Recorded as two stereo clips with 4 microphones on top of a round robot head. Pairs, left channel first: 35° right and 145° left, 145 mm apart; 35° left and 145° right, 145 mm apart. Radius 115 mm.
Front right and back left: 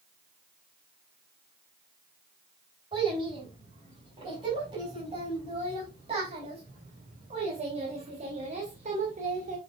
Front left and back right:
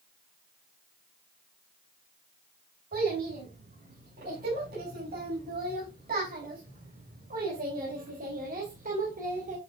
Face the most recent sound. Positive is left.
turn(degrees=180)